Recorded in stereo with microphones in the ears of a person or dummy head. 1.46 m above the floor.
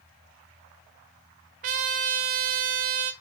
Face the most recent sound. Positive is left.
turn(degrees=-40)  # may be behind; listen again after turning